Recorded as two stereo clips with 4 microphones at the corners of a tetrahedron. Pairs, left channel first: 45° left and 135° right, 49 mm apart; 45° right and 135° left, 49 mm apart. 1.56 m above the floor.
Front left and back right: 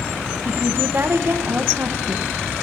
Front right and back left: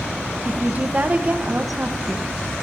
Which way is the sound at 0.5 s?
170° right.